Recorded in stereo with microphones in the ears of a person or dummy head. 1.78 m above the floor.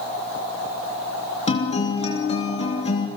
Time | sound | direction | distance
1.5 | a guitar | 35° left (ahead or behind) | 3 m